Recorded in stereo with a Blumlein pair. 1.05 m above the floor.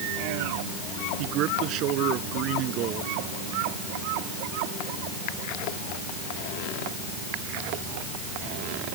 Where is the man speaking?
40° right.